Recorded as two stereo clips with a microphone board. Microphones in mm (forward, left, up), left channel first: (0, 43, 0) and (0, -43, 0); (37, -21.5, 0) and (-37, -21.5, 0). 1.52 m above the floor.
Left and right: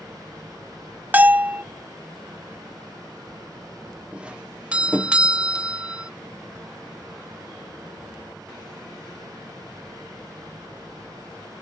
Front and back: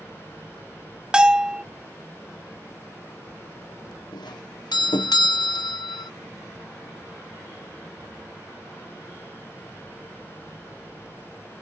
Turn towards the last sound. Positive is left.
turn(degrees=-15)